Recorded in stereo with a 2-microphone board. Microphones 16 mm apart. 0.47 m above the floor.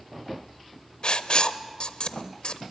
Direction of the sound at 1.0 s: 60° left (ahead or behind).